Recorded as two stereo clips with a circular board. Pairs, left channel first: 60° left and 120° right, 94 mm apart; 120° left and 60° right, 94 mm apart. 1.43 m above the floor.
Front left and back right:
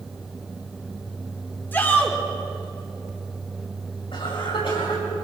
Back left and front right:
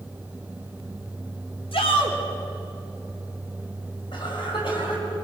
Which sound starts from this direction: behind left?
A shout, at 1.7 s.